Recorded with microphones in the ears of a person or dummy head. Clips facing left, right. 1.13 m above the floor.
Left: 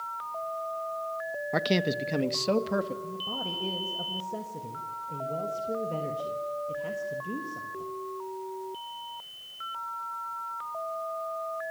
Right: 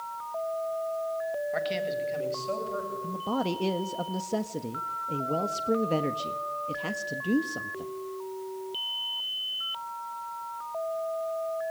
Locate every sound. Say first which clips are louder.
1.5 s a man speaking: left 7 dB; 60° left (ahead or behind), 1.2 m; by 2.9 s 75° left (ahead or behind), 2.5 m
3.0 s a man speaking: right 8 dB; 80° right, 1.4 m